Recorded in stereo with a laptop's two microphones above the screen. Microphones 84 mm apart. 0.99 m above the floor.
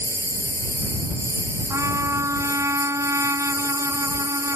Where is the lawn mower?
30° right (ahead or behind).